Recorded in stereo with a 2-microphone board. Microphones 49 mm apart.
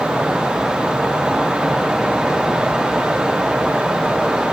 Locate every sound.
Only background noise.